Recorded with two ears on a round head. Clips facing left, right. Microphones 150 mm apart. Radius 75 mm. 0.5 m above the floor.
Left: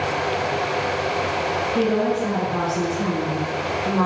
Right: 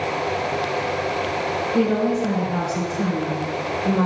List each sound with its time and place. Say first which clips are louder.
1.7 s a woman speaking: right 1 dB; 55° right (ahead or behind), 1.9 m